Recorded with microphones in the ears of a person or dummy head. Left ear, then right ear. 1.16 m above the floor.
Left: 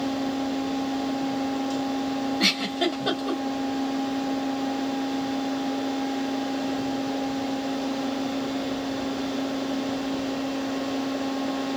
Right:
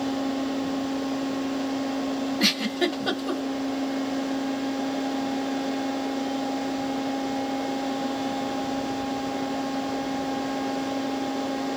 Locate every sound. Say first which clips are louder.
2.4 s a giggle: even; 20° left (ahead or behind), 1.6 m